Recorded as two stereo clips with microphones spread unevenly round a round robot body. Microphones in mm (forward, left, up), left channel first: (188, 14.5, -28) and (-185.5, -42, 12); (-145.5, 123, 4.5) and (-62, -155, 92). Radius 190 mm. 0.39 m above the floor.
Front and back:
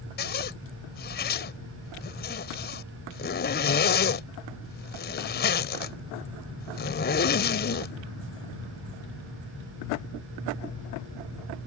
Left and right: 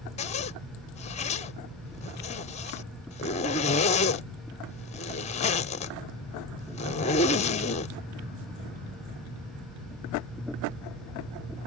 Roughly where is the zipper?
Ahead left.